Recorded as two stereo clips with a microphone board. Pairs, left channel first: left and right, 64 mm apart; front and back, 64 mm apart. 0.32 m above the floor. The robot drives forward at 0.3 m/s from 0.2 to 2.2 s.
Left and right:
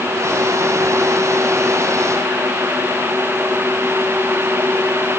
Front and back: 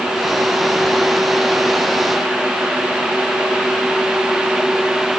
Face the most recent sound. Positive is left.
No sound to turn to.